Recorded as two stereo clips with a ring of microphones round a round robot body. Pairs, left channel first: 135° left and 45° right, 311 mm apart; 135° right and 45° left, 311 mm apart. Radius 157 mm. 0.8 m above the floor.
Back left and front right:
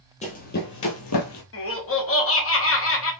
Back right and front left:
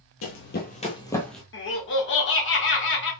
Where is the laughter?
175° left, 1.6 m.